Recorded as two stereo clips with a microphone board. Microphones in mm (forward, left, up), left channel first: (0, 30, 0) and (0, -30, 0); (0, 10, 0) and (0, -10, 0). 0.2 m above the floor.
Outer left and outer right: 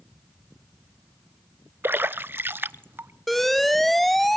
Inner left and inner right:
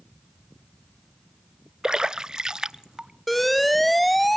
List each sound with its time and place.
1.8 s a splash: 40° right (ahead or behind), 0.6 m
3.3 s an alarm: 5° left (ahead or behind), 0.7 m